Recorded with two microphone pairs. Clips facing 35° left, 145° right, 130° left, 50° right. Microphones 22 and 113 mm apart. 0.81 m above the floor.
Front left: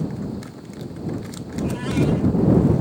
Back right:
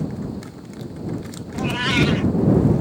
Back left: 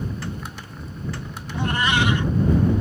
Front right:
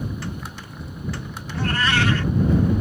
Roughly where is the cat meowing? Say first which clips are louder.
Back right 3 dB, even; behind right.